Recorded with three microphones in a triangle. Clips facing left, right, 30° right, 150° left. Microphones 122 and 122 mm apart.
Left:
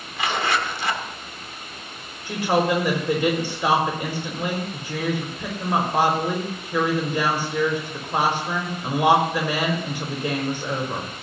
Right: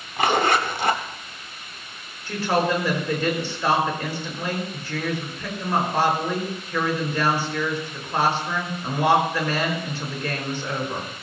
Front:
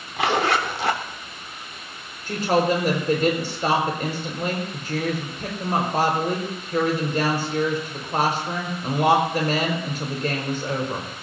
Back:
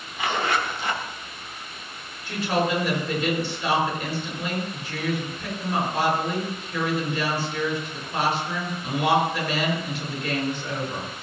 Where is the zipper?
50° right, 1.6 m.